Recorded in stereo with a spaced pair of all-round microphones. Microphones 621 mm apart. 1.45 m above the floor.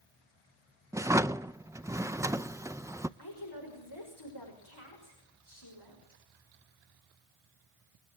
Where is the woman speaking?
40° left (ahead or behind), 6 m.